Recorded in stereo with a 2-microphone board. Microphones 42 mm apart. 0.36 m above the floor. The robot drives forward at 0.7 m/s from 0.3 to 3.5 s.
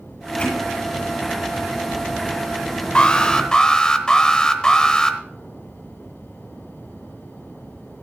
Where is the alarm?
25° left (ahead or behind), 0.8 m; by 5.2 s 20° left (ahead or behind), 1.1 m.